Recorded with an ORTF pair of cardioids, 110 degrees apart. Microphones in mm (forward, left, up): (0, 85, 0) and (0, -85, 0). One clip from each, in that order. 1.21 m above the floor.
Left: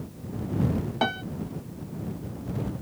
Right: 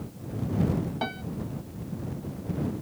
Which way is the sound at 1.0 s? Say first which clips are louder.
Left 9 dB; 35° left.